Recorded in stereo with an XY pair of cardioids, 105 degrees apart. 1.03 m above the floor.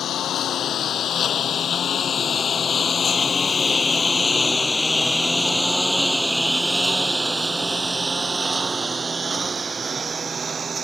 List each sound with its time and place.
0.0 s a lawn mower: 60° left; by 10.8 s 40° right